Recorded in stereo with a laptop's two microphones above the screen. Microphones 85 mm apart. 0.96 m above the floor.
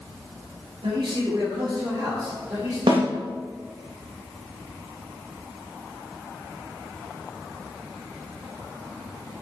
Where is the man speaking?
85° right, 1.5 m; by 2.8 s 35° right (ahead or behind), 2.5 m.